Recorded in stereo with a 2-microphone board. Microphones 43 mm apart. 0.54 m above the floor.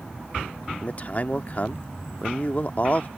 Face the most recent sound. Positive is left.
turn(degrees=40)  # may be behind; listen again after turning